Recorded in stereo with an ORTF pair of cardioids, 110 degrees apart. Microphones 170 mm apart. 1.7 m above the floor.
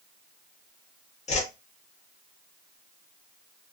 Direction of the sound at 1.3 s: 45° left.